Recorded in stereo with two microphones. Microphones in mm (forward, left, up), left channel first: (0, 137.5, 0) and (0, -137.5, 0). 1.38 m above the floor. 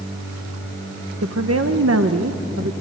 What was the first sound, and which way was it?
A woman speaking, 65° right (ahead or behind).